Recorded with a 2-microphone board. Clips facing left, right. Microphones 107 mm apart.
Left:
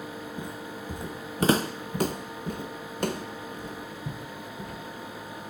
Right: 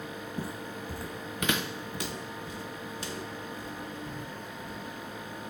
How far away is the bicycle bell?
No bicycle bell in this recording.